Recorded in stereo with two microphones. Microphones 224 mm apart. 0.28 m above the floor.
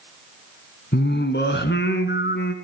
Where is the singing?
50° left (ahead or behind), 2 m.